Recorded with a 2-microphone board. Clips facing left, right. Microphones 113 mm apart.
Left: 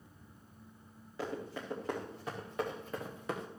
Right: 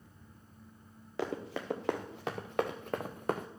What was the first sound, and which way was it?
Running footsteps, 85° right.